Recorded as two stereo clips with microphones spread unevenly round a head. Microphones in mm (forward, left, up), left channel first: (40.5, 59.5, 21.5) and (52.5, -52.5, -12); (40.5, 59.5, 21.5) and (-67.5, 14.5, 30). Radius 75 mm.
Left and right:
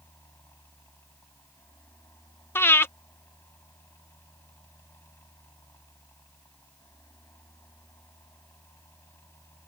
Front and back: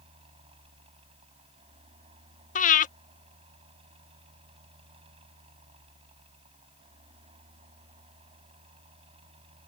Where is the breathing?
30° left.